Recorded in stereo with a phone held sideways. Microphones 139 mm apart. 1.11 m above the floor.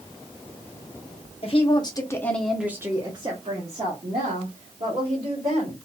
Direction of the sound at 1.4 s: 45° left (ahead or behind).